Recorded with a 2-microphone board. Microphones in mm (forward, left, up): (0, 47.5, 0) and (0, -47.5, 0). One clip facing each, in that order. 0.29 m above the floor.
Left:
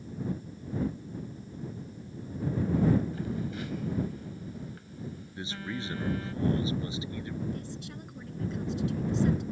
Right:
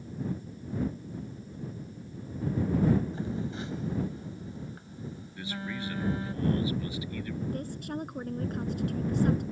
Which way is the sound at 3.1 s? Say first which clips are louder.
Even; 25° right (ahead or behind).